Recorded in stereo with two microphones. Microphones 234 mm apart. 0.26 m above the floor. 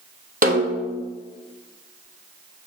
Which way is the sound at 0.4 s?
35° right (ahead or behind).